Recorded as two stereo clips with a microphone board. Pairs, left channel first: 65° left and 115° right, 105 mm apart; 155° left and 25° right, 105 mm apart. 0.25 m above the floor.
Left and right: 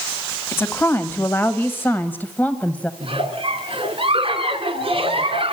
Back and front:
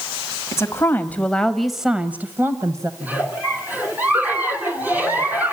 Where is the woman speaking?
120° left, 1.3 m; by 2.9 s straight ahead, 1.2 m.